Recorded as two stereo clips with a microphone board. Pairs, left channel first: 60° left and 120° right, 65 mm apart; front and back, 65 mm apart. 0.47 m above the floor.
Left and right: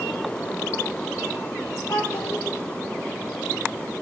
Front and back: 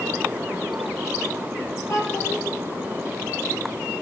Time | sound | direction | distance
1.9 | a child speaking | 45° left | 8 m